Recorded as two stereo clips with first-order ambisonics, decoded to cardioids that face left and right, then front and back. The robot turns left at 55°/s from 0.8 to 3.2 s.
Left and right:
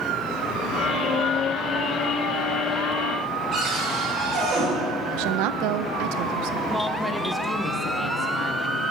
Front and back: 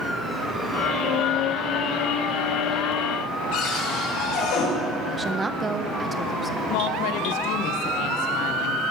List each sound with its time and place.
3.5 s a cupboard door: 20° right, 5 m
5.1 s a woman speaking: 105° right, 0.7 m
6.7 s a woman speaking: straight ahead, 0.9 m